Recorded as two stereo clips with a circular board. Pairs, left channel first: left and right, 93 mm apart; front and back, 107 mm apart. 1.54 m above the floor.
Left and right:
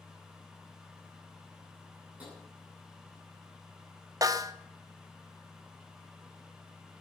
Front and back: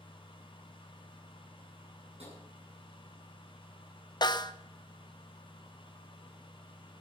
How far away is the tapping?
About 9 m.